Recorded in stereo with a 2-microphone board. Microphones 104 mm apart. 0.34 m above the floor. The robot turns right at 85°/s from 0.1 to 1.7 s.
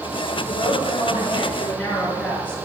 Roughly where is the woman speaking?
Ahead left.